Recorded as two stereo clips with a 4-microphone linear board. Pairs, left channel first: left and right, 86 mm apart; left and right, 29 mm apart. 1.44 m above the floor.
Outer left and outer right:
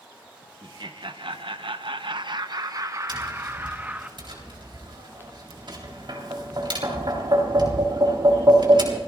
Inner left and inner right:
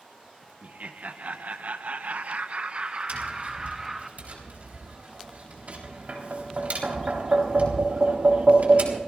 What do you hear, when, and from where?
0.6 s laughter: 55° right (ahead or behind), 1.1 m; by 4.1 s 20° right (ahead or behind), 1.3 m
3.1 s tapping: 60° right (ahead or behind), 3.5 m